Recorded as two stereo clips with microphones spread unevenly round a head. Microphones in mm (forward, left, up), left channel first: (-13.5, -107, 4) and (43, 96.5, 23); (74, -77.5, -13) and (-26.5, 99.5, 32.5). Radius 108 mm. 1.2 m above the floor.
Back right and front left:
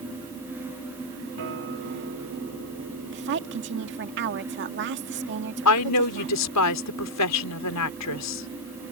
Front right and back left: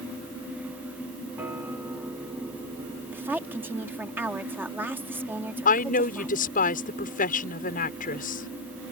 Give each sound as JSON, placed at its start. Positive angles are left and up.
{"t": 1.4, "sound": "a guitar", "azimuth_deg": 40}
{"t": 3.1, "sound": "a woman speaking", "azimuth_deg": 35}
{"t": 5.7, "sound": "a woman speaking", "azimuth_deg": -115}